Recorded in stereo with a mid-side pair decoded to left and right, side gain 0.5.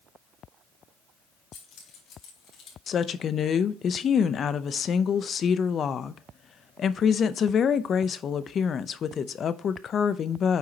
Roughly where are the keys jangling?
Ahead left.